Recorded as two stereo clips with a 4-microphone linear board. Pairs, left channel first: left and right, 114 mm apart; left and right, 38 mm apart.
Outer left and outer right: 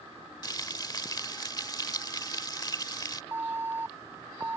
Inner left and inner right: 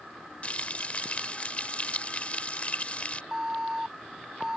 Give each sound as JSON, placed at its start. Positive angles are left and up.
{"t": 0.4, "sound": "frying", "side_deg": 35}
{"t": 3.3, "sound": "an alarm", "side_deg": -20}